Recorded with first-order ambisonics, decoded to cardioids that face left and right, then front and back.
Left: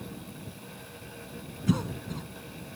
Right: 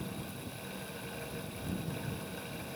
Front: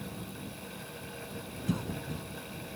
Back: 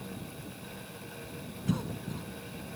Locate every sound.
1.7 s a cough: 95° left